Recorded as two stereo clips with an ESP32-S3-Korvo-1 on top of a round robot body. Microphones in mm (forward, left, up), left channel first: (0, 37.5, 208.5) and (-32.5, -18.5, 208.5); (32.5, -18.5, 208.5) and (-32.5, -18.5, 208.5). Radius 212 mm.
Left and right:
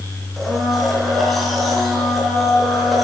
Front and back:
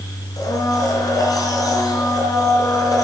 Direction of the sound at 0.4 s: 30° right.